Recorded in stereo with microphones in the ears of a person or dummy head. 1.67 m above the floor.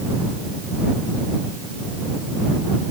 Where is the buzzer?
No buzzer in this recording.